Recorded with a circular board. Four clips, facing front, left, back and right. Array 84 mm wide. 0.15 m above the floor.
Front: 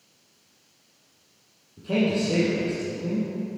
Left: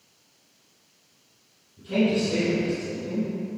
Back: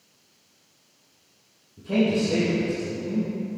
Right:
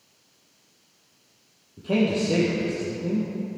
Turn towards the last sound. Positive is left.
turn(degrees=-75)